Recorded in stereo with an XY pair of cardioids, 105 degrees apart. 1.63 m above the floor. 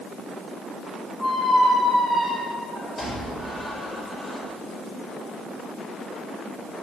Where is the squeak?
25° left, 4.5 m.